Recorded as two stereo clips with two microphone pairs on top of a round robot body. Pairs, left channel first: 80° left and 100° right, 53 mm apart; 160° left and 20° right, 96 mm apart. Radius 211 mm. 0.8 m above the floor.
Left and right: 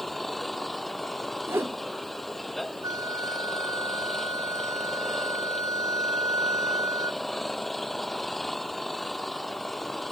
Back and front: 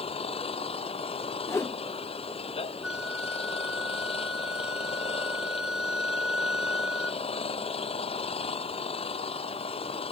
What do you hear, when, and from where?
0.0 s an engine running: 170° left
1.5 s a whoosh: 140° right
2.8 s a flute: 105° right